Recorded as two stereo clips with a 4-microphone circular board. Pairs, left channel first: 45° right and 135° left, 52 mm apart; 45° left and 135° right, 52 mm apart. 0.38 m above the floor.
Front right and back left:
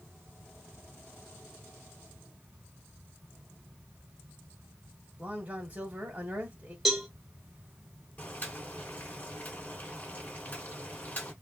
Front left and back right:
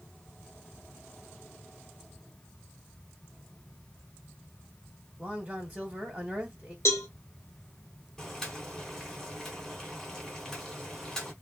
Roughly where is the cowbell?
Ahead left.